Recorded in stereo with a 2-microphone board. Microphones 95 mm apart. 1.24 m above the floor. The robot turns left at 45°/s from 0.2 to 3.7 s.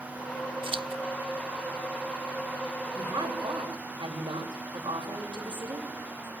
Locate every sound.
0.6 s scissors: 65° right (ahead or behind), 0.7 m; by 1.0 s 75° right (ahead or behind), 0.7 m
3.0 s a woman speaking: 25° right, 7 m; by 6.3 s 55° right, 7 m